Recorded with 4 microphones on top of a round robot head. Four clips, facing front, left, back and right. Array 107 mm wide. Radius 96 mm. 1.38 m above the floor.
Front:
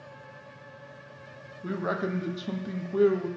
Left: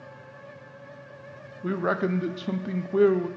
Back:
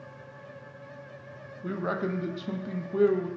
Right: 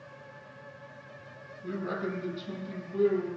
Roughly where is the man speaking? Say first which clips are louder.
Left 8 dB, even; left.